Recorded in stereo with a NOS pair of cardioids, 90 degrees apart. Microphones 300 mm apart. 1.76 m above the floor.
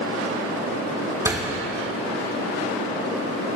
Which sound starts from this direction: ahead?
A door slam, at 1.2 s.